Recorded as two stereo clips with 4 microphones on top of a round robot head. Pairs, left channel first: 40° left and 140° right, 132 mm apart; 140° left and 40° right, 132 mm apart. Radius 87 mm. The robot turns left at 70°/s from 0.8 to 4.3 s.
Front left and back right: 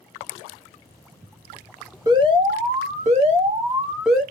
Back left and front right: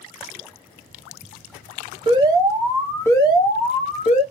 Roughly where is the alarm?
Right.